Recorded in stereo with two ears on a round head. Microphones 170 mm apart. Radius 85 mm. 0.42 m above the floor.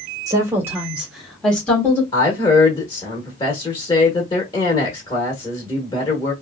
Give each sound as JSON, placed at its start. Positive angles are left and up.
{"t": 0.3, "sound": "a woman speaking", "side_deg": -20, "distance_m": 1.2}
{"t": 2.1, "sound": "a woman speaking", "side_deg": 25, "distance_m": 0.9}